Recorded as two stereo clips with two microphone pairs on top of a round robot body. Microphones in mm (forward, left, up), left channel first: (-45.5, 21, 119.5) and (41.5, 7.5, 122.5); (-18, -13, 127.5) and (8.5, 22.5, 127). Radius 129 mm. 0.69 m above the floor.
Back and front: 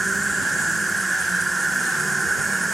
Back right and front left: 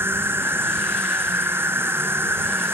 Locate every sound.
0.0 s an insect: 80° left